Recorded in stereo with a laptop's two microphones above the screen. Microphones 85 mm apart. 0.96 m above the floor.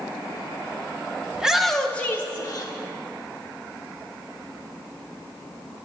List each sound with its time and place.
1.4 s a shout: 10° right (ahead or behind), 0.8 m; by 2.7 s 40° left (ahead or behind), 1.0 m